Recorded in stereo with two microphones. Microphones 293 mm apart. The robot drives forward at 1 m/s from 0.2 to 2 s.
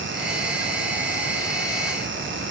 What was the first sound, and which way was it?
Only background noise.